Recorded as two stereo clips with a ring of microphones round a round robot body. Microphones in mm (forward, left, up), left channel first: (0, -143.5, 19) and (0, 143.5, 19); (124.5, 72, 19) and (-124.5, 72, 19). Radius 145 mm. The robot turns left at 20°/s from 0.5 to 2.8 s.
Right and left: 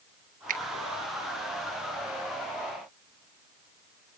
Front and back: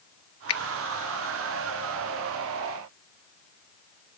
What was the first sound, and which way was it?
A finger snap, 25° left.